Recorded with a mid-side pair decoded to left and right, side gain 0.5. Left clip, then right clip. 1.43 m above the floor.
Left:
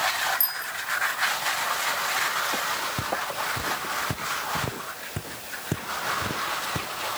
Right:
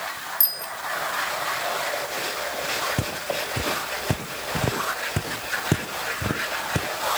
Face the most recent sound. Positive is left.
turn(degrees=-45)